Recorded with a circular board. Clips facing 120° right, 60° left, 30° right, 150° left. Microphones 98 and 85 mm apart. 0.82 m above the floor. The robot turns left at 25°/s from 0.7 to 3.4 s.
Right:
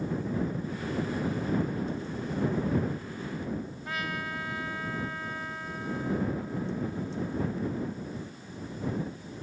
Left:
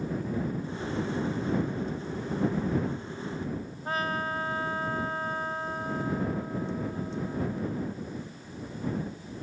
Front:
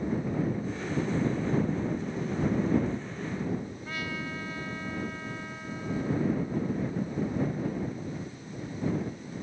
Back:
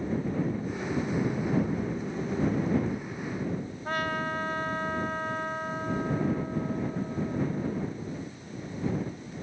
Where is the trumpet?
110° left.